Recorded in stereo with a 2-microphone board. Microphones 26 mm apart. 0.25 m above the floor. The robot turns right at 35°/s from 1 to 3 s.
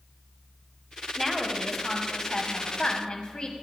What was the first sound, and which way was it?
A woman speaking, straight ahead.